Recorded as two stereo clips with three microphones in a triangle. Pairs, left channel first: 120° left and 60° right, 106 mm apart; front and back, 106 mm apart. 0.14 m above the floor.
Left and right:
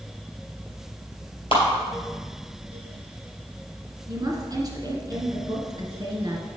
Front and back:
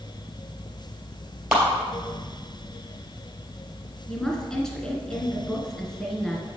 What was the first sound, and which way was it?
A clap, 100° left.